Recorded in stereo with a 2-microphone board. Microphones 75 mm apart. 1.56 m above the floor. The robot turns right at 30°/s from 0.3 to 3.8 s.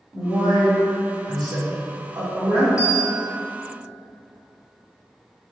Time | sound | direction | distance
0.1 | a man speaking | 70° right (ahead or behind) | 1.8 m
2.8 | a bell | 50° left (ahead or behind) | 0.8 m